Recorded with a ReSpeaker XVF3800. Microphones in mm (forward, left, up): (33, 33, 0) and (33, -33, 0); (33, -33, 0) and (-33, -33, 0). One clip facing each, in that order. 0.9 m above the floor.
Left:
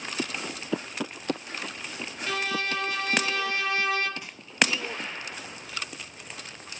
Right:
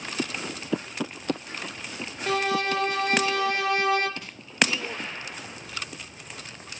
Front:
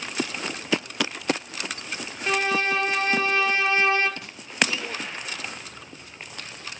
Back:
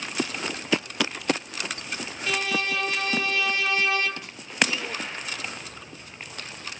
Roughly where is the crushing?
Ahead.